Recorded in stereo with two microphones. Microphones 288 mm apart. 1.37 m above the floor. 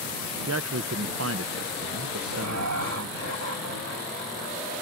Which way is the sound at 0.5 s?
60° right (ahead or behind).